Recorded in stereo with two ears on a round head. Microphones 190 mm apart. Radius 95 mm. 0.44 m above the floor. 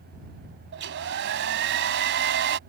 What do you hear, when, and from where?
0.7 s a hair dryer: 60° right (ahead or behind)